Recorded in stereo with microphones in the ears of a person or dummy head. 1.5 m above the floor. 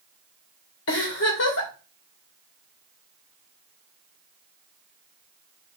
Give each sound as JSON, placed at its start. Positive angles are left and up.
{"t": 0.9, "sound": "a giggle", "side_deg": 70, "distance_m": 3.0}